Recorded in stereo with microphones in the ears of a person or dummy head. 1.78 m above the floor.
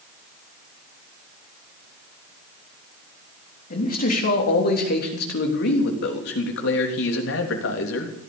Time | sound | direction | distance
3.7 | a man speaking | 50° left (ahead or behind) | 3.5 m